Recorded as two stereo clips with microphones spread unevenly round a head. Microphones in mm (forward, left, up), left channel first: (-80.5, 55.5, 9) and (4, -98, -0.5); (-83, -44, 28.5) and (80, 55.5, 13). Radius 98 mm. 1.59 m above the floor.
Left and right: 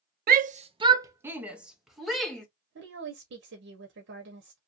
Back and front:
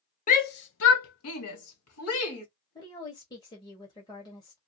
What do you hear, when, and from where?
0.3 s a shout: 95° right, 0.6 m; by 2.5 s 155° right, 1.8 m
2.8 s a woman speaking: 80° right, 1.0 m